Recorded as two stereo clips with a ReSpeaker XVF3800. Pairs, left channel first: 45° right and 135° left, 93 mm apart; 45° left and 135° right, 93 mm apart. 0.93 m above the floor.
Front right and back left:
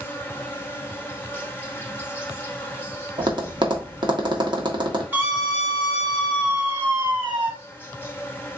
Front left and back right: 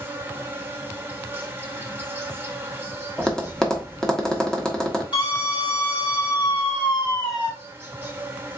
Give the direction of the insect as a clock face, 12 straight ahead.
3 o'clock.